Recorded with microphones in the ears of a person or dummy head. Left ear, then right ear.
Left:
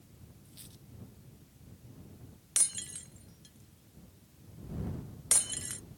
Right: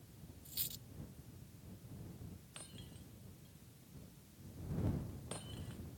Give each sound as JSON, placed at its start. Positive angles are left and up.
{"t": 0.5, "sound": "a dropped coin", "side_deg": -25}
{"t": 2.6, "sound": "breaking glass", "side_deg": 70}